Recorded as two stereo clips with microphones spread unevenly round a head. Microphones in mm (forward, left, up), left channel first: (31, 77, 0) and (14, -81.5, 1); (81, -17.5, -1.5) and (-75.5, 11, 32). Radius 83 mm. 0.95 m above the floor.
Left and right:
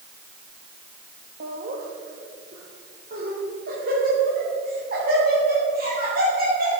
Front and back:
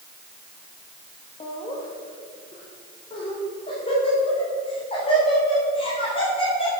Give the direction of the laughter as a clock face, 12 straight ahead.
2 o'clock.